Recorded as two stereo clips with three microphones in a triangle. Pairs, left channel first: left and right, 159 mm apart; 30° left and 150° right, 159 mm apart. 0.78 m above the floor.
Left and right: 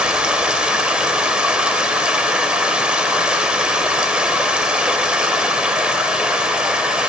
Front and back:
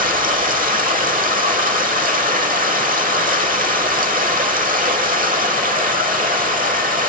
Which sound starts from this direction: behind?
Running water, at 0.0 s.